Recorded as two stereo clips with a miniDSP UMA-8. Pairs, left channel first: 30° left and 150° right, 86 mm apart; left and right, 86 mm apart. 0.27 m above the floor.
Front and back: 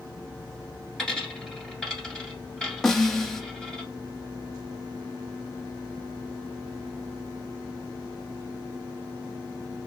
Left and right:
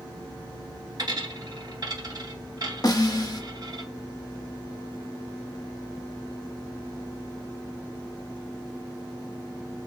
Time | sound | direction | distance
1.0 | a dropped coin | 55° right | 1.5 m
2.8 | a snare drum | 115° left | 0.6 m